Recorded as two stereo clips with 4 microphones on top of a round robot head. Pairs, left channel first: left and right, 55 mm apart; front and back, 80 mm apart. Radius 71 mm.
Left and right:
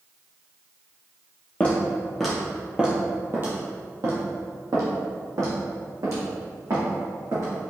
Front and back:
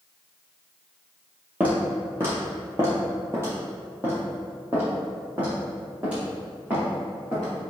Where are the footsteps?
130° left, 1.1 m; by 7.7 s 100° right, 3.5 m.